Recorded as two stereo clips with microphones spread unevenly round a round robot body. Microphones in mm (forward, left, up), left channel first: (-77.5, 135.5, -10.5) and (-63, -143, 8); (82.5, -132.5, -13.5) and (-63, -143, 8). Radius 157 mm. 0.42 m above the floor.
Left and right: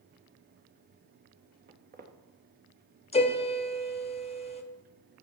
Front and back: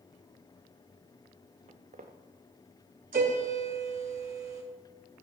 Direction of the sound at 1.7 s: 145° right.